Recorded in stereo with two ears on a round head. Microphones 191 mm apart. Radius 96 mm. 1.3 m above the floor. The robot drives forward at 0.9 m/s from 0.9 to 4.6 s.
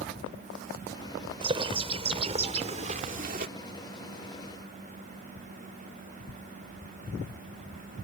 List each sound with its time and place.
1.4 s a bird: 25° right (ahead or behind); by 3.5 s 40° right (ahead or behind)